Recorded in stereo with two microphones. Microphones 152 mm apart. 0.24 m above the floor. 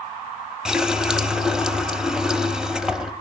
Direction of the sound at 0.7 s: 5° right (ahead or behind).